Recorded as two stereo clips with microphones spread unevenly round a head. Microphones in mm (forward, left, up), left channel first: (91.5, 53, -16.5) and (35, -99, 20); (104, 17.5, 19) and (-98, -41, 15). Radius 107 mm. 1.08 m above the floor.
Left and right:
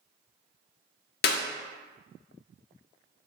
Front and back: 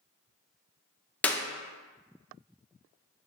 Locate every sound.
1.2 s a clap: 100° left, 0.6 m